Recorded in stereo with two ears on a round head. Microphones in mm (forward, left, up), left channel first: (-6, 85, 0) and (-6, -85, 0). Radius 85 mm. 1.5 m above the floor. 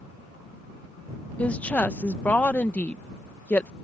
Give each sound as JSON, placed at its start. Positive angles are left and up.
{"t": 1.4, "sound": "a woman speaking", "side_deg": 10}